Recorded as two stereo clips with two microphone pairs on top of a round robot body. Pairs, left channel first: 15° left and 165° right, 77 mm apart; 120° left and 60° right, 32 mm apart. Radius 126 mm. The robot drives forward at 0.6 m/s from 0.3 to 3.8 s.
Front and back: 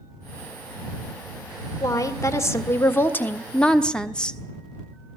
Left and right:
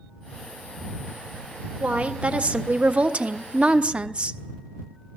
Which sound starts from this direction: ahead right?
A woman speaking, at 1.8 s.